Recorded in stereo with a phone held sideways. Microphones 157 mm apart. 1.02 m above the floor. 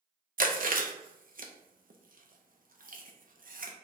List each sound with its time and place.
0.4 s chewing: 60° right (ahead or behind), 0.6 m